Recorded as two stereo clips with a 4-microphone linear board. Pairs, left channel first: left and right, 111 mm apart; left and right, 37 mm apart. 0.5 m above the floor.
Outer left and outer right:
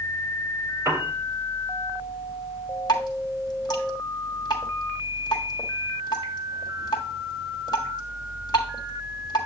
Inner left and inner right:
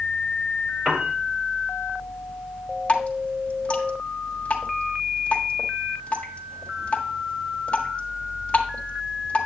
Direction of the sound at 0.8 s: 30° right (ahead or behind).